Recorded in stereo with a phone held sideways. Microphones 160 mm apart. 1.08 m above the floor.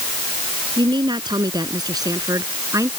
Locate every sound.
0.8 s a woman speaking: 30° right (ahead or behind); by 2.9 s 20° right (ahead or behind)